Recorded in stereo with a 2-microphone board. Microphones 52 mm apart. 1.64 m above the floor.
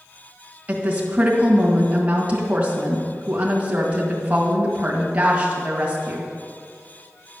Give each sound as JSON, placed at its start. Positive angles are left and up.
{"t": 0.7, "sound": "a woman speaking", "side_deg": -25, "distance_m": 2.0}